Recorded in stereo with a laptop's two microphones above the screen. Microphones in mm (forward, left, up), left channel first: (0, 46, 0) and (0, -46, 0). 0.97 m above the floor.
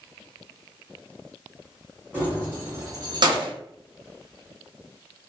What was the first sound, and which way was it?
Keys jangling, 20° right (ahead or behind).